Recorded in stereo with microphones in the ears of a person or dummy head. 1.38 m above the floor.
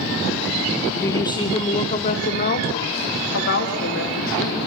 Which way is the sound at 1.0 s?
15° left (ahead or behind).